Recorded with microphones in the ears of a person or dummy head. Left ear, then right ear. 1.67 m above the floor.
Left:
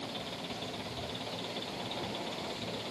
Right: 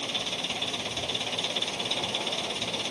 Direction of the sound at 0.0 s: 85° right.